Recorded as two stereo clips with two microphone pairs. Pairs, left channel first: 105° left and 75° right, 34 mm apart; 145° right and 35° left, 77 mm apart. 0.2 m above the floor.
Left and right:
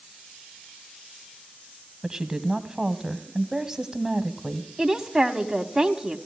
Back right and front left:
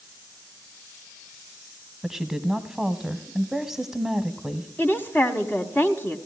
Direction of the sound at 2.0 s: 40° right.